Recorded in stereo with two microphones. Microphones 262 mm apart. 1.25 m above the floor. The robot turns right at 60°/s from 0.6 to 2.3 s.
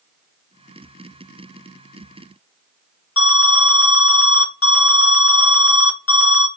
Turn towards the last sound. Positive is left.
turn(degrees=55)  # may be behind; listen again after turning